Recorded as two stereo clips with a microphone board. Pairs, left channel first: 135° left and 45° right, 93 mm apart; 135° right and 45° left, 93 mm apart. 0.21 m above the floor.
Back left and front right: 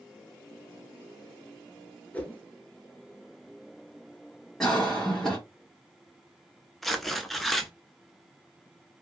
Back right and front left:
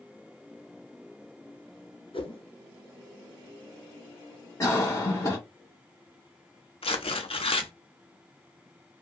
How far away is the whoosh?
About 0.7 m.